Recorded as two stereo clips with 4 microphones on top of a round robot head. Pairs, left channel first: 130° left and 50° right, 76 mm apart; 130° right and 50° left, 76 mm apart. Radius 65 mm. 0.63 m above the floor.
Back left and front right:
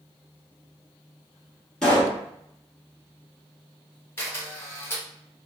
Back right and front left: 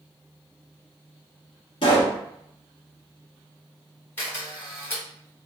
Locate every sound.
1.8 s a pop: 150° right, 1.4 m
4.2 s a camera shutter: straight behind, 1.4 m